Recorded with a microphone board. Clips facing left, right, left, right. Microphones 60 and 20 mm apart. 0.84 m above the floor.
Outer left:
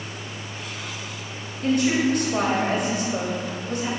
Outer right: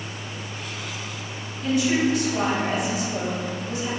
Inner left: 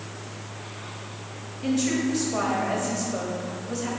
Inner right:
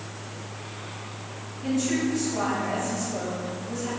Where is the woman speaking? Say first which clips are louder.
Outer left 1 dB, inner left 1 dB; 50° left (ahead or behind), 1.9 m.